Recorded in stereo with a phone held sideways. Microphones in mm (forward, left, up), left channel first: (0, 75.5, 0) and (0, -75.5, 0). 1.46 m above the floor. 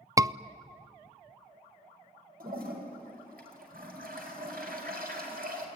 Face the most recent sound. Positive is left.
turn(degrees=-85)